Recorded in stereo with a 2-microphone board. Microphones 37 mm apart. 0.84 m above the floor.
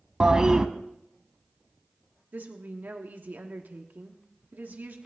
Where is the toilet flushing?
20° right (ahead or behind), 0.9 m.